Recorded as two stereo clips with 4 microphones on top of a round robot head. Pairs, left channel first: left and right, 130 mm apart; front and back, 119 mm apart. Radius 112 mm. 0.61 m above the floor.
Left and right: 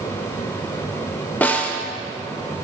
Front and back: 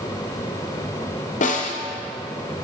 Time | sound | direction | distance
1.4 | a snare drum | 15° left | 0.9 m